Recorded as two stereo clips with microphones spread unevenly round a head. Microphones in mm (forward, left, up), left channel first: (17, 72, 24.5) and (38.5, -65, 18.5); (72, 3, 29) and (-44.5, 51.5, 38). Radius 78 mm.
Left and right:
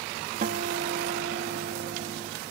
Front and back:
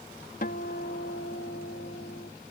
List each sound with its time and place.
0.4 s a guitar: 60° right